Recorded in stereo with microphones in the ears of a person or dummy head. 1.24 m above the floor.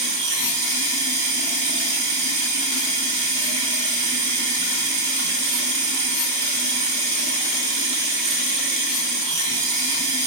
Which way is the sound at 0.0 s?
50° right (ahead or behind).